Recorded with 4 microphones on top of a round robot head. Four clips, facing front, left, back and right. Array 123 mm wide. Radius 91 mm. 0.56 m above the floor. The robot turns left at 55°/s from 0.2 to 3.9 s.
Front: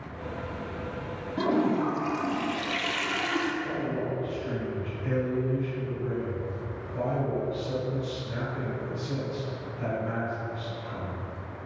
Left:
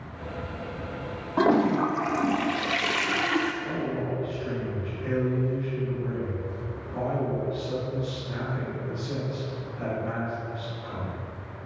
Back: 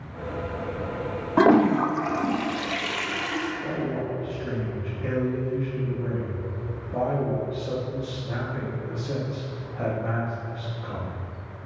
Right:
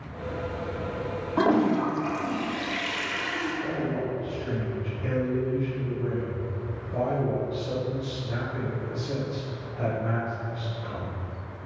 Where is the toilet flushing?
Straight behind, 0.8 m; by 3.5 s 60° left, 0.8 m.